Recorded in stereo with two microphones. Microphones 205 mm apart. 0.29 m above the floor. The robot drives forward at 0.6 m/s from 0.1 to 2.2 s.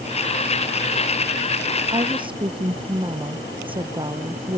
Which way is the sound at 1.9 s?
25° right (ahead or behind).